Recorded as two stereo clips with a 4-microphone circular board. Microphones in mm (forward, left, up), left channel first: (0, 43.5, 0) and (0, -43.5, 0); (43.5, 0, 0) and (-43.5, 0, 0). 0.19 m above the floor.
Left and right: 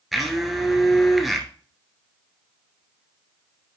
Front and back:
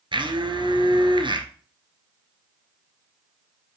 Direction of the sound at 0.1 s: Straight behind.